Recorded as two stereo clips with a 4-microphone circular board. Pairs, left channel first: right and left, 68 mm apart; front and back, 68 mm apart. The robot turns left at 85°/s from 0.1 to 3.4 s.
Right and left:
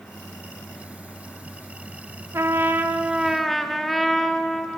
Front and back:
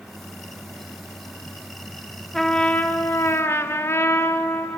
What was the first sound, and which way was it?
A trumpet, 85° left.